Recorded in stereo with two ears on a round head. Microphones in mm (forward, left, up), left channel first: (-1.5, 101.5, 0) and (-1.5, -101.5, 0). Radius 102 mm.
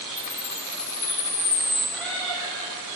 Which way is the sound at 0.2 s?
15° left (ahead or behind).